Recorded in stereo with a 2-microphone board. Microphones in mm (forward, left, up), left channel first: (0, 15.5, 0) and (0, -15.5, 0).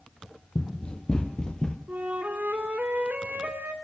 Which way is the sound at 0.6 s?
30° left (ahead or behind).